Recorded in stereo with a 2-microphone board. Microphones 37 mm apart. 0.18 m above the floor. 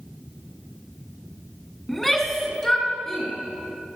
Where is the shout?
5° left (ahead or behind), 1.9 m; by 3.3 s 15° left (ahead or behind), 3.5 m.